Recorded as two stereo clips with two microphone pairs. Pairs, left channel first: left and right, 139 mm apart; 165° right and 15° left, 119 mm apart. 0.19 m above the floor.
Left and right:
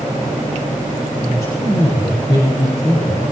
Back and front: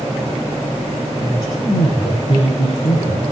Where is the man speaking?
155° left, 7.5 m; by 3.2 s 145° left, 7.5 m.